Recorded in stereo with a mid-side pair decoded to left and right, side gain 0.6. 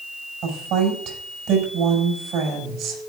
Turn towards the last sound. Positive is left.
turn(degrees=-70)